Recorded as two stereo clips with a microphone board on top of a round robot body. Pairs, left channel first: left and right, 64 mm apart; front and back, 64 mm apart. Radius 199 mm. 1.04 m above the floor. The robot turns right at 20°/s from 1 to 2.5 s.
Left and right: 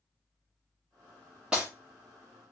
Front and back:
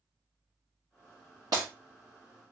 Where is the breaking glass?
165° right, 0.6 m.